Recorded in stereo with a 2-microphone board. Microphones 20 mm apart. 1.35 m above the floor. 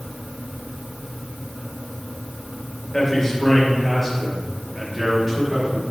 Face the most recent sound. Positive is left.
turn(degrees=-20)  # may be behind; listen again after turning